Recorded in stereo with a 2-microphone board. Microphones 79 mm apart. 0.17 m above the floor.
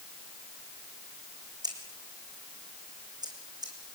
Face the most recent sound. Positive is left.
turn(degrees=-55)  # may be behind; listen again after turning